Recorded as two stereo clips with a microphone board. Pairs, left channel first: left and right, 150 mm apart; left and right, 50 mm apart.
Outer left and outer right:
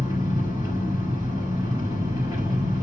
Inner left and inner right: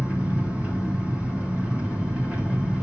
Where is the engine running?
25° right (ahead or behind), 6 m.